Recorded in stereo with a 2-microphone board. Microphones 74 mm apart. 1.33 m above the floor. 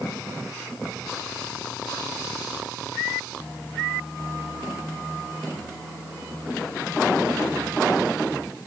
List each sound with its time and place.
Only background noise.